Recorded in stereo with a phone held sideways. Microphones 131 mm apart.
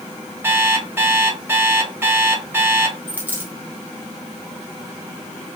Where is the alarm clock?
15° right (ahead or behind), 2.5 m.